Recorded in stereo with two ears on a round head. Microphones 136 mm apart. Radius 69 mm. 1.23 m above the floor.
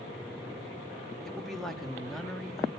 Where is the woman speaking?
Centre (ahead or behind), 2 m.